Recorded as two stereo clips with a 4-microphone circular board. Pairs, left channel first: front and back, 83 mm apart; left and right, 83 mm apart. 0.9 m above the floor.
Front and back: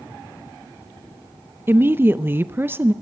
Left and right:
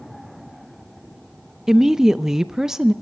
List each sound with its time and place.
1.7 s a woman speaking: 165° right, 0.5 m